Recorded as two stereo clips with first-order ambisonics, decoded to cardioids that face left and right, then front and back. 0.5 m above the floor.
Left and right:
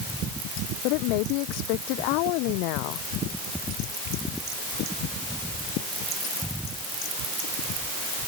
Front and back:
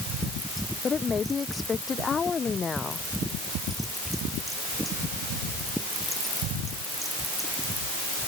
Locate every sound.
0.8 s a woman speaking: 75° left